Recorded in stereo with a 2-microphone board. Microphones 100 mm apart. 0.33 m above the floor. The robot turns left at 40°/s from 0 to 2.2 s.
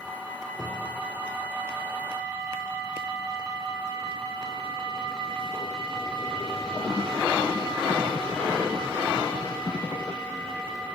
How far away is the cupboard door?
About 5.5 m.